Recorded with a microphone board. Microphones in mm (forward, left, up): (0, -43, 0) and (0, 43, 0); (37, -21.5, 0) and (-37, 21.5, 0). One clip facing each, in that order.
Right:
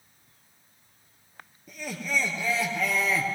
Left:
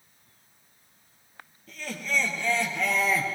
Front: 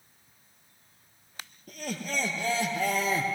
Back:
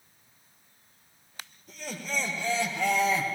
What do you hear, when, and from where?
1.7 s laughter: 15° right, 2.5 m; by 3.3 s 5° left, 2.0 m